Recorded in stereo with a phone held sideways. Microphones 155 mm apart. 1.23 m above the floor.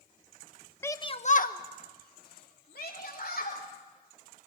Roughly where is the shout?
Centre.